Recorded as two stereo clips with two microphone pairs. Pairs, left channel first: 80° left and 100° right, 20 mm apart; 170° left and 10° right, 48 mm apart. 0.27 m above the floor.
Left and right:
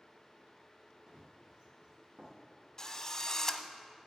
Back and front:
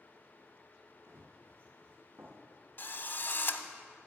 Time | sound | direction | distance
1.1 | running footsteps | 40° right | 2.5 m
2.8 | a drill | 140° left | 0.7 m